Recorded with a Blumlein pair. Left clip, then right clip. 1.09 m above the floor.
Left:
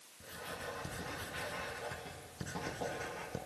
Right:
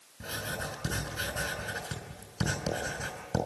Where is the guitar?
I don't hear a guitar.